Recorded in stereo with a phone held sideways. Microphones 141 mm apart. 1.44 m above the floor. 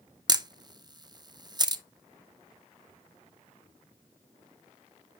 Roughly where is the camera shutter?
Right.